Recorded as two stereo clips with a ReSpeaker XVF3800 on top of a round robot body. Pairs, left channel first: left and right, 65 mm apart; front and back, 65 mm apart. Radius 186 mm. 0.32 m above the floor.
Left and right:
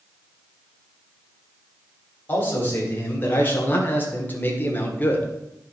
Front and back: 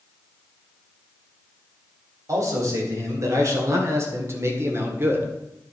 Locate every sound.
2.3 s a man speaking: 150° left, 3.5 m; by 5.3 s 140° left, 1.9 m